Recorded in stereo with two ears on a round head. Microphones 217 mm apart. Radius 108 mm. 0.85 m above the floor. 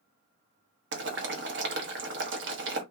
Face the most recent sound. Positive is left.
turn(degrees=-50)  # may be behind; listen again after turning